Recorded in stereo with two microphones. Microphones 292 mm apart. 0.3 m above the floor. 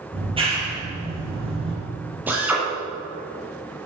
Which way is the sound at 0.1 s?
20° right (ahead or behind).